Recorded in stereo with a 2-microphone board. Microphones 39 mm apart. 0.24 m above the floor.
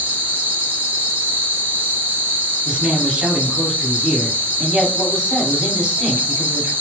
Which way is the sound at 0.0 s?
70° right (ahead or behind).